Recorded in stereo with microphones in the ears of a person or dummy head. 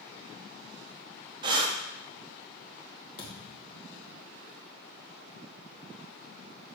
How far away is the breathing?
About 0.5 m.